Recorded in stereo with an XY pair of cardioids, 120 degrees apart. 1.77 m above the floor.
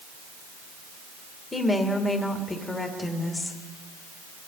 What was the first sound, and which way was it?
A woman speaking, 20° left.